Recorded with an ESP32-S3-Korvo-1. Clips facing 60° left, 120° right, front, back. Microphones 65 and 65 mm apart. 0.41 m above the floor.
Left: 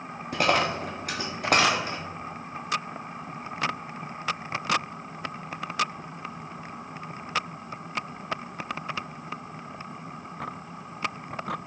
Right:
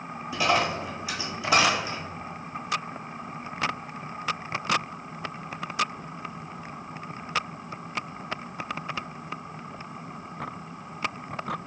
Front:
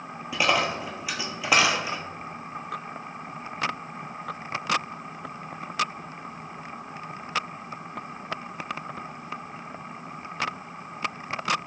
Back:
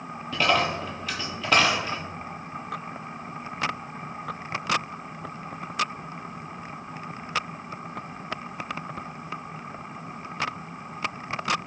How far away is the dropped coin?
About 0.7 m.